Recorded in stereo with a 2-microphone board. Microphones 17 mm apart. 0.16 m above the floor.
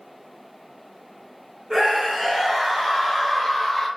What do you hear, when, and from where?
1.7 s a scream: 30° right (ahead or behind), 2.0 m; by 3.9 s 10° left (ahead or behind), 2 m